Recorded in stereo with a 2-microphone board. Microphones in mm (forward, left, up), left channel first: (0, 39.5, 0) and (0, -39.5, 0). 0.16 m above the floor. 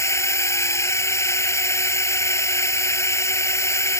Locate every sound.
0.0 s a drone: 40° left (ahead or behind)